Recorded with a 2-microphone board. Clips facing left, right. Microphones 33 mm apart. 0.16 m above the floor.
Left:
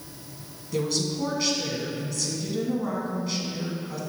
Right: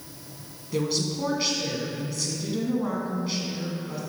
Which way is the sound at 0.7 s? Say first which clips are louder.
Even; 10° right (ahead or behind).